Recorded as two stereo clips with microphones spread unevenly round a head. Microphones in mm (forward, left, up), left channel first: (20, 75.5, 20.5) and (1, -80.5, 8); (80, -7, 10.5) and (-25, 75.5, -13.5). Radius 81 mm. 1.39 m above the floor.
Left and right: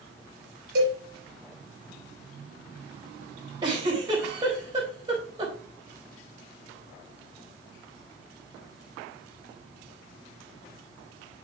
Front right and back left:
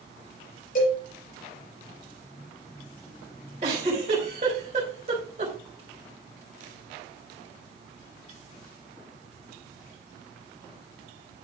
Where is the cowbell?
70° right, 4.5 m.